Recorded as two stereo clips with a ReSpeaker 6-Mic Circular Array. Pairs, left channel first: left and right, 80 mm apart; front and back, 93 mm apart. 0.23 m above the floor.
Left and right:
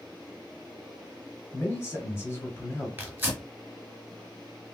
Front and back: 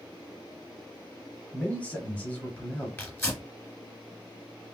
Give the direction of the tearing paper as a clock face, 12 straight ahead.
2 o'clock.